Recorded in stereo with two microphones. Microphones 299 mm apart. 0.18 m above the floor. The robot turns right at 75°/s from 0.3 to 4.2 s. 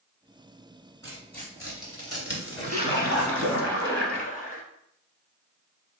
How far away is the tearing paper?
About 1.7 m.